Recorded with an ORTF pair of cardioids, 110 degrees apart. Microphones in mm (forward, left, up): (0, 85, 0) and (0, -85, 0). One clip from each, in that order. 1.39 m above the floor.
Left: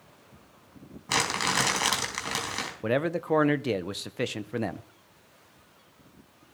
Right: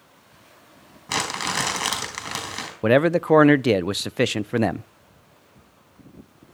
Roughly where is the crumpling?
Ahead.